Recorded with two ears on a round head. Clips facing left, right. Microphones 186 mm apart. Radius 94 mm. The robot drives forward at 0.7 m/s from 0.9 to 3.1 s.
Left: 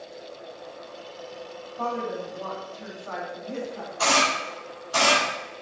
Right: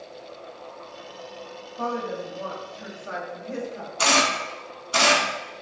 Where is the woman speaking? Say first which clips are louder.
Right 1 dB; 25° right (ahead or behind), 1.1 m.